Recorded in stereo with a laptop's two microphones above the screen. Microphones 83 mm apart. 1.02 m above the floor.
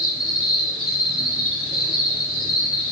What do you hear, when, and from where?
0.0 s an insect: 10° right (ahead or behind), 1.1 m